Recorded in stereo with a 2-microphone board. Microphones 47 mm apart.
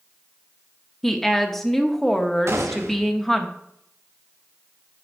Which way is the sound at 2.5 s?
70° right (ahead or behind).